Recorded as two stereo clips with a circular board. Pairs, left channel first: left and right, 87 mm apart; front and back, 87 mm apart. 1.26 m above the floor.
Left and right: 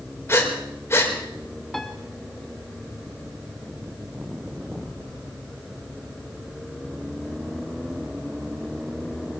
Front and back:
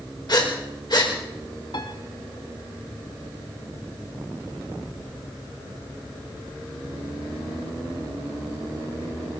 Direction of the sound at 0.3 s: 30° left.